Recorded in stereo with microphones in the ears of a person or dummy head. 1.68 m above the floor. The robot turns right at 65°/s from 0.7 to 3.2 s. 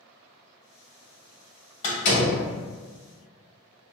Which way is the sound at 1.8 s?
35° left (ahead or behind).